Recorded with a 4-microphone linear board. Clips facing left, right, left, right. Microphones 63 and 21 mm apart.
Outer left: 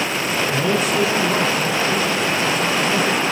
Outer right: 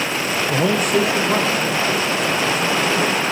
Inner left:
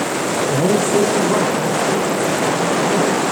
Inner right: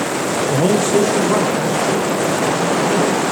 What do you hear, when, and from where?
0.5 s a man speaking: 55° right (ahead or behind), 0.6 m; by 3.2 s 50° right (ahead or behind), 3.5 m